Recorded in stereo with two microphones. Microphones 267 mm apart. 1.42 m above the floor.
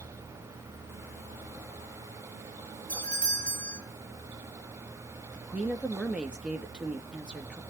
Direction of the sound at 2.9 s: 30° right (ahead or behind).